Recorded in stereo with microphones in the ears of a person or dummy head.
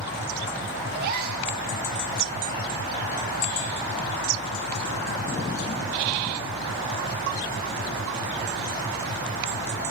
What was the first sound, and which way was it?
A gasp, 55° right (ahead or behind).